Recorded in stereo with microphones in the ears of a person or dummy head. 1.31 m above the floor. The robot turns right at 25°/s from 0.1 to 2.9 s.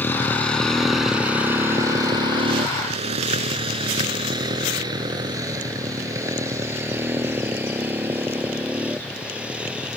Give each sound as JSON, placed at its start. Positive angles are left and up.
{"t": 0.0, "sound": "a motorcycle", "side_deg": 10}